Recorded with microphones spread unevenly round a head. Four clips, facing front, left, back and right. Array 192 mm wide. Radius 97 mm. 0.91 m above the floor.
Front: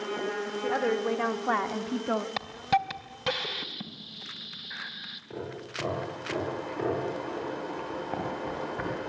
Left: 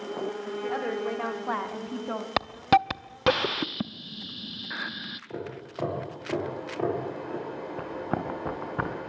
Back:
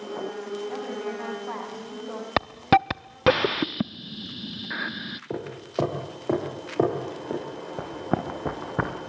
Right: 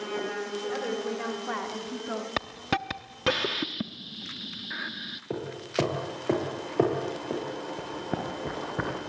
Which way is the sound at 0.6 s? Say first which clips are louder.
Left 3 dB, front 8 dB; 5° left.